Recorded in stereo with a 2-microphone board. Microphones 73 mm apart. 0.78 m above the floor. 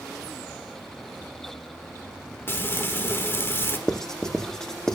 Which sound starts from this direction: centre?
Writing, at 3.9 s.